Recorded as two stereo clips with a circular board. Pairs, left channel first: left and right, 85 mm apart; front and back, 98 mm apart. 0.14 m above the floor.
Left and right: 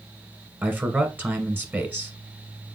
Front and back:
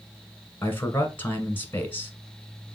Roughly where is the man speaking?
Ahead right.